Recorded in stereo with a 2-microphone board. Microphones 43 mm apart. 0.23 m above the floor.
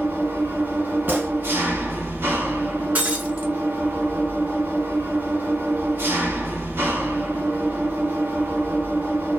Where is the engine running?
60° right (ahead or behind), 1.0 m.